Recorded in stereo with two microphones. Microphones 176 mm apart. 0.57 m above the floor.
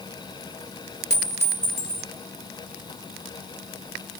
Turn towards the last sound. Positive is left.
turn(degrees=70)  # may be behind; listen again after turning